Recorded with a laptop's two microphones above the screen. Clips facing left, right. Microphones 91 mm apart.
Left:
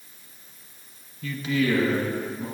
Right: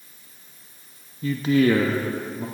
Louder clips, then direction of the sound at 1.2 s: Right 6 dB; 30° right (ahead or behind).